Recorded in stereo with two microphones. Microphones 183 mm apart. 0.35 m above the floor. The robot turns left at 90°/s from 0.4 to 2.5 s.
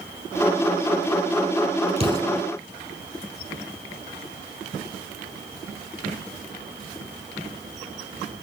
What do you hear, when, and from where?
2.0 s an explosion: 35° right (ahead or behind), 3.5 m; by 2.4 s 5° left (ahead or behind), 3.5 m